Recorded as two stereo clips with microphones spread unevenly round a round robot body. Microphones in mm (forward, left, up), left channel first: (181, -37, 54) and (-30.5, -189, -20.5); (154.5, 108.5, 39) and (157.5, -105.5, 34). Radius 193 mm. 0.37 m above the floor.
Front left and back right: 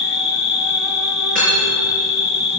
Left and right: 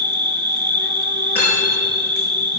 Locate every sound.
0.0 s an insect: 55° right, 1.0 m
1.4 s cutlery clinking: 150° left, 3.5 m